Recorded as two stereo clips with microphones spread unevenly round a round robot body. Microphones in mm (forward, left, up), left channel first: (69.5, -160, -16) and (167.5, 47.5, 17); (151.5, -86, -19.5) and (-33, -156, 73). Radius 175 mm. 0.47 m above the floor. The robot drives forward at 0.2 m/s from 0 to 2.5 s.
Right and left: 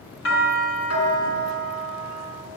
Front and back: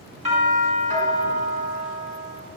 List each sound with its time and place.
0.2 s a doorbell: 100° right, 6 m; by 2.4 s 105° right, 6 m